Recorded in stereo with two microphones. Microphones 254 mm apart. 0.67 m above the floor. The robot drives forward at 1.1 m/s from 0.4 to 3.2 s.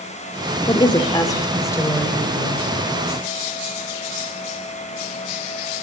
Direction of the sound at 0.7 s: 20° left (ahead or behind).